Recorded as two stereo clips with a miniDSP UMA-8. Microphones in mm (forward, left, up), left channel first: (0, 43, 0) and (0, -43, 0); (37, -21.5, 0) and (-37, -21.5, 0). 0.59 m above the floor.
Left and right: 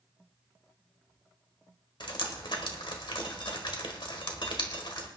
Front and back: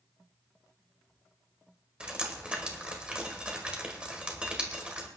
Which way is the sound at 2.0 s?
105° left.